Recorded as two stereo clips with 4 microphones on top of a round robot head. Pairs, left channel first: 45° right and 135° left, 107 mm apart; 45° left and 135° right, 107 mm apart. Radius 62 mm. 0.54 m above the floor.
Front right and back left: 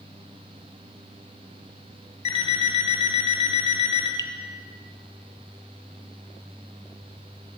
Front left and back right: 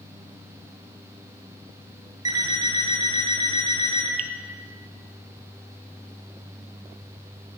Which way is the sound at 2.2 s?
80° right.